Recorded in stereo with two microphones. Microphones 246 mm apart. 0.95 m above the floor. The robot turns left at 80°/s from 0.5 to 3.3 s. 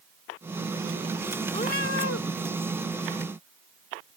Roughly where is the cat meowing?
Behind.